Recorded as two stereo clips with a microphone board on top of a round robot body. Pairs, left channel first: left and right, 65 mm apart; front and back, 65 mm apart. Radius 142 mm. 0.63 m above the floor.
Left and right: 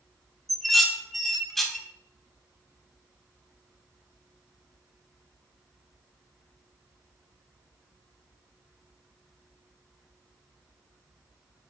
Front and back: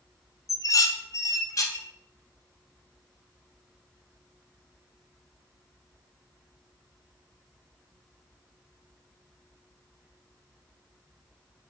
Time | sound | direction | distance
0.5 | dishes clattering | 5° left | 0.6 m